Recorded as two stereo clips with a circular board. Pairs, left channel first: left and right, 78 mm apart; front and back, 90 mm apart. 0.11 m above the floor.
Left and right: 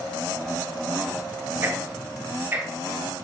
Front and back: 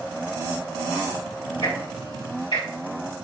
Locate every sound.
1.6 s ticking: 25° right, 3.5 m